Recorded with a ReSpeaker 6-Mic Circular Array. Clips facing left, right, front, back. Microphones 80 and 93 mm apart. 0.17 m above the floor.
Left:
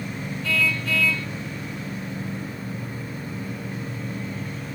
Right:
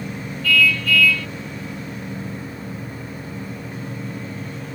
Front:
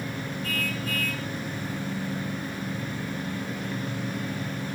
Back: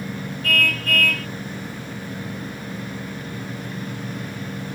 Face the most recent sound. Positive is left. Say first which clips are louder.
# right 6 dB, back 10 dB
turn(degrees=155)